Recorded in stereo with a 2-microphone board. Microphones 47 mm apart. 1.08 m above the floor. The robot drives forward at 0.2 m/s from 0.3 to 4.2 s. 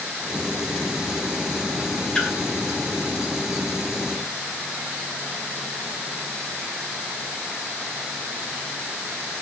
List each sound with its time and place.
2.1 s a splash: 15° left (ahead or behind), 2.5 m